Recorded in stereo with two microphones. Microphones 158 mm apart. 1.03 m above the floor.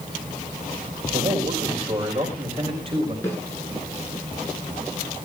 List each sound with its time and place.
1.1 s a man speaking: 50° right (ahead or behind), 5 m; by 3.1 s 35° right (ahead or behind), 6 m
3.2 s a snare drum: 15° left (ahead or behind), 9.5 m